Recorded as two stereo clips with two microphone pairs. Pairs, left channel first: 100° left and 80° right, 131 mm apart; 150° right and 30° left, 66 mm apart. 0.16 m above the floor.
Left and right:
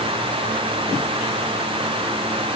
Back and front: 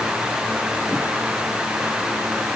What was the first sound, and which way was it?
Only background noise.